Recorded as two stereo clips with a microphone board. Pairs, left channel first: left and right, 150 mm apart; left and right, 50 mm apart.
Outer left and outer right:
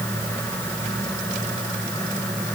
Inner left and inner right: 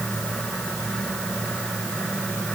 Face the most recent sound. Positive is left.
No sound to turn to.